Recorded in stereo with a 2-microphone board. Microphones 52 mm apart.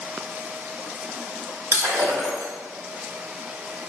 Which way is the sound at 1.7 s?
65° right (ahead or behind).